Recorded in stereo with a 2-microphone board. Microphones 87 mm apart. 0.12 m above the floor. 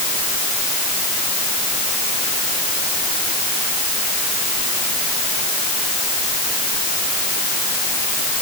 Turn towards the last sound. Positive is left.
No sound to turn to.